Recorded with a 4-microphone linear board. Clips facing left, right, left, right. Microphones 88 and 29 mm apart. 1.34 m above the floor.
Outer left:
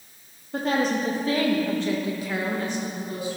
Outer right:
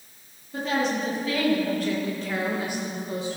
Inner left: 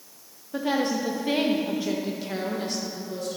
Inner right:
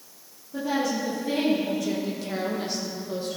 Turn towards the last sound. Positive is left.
turn(degrees=-35)  # may be behind; listen again after turning